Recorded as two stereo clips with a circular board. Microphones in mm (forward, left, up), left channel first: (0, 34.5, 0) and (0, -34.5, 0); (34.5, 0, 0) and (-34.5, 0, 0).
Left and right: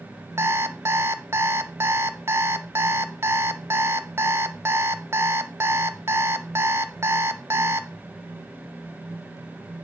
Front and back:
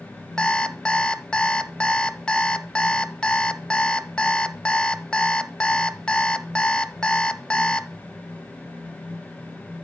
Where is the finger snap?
I don't hear a finger snap.